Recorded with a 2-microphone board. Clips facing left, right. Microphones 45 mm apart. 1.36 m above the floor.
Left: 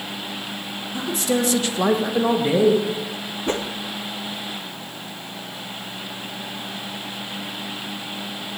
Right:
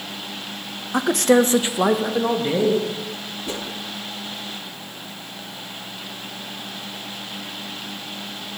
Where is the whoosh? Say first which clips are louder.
Left 6 dB; 40° left (ahead or behind), 0.9 m.